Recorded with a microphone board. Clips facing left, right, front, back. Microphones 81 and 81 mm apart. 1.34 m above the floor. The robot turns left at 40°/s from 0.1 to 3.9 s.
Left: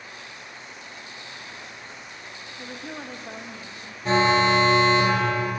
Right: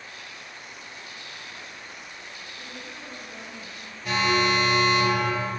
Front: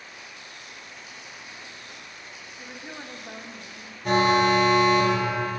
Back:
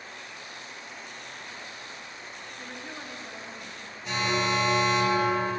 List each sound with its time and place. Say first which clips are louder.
2.6 s a woman speaking: left 7 dB, front 1 dB; 95° left, 2.5 m; by 4.0 s 45° left, 2.5 m
4.0 s an alarm: left 4 dB, front 8 dB; 35° left, 3 m